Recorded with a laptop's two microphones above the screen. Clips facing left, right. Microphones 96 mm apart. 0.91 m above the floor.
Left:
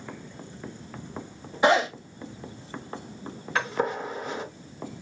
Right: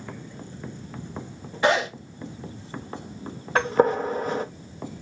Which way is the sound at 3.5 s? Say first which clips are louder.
Right 7 dB; 40° right (ahead or behind).